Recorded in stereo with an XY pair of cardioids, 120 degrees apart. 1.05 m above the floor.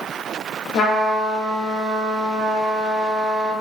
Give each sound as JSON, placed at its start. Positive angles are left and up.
{"t": 0.7, "sound": "a trumpet", "azimuth_deg": 60, "distance_m": 1.1}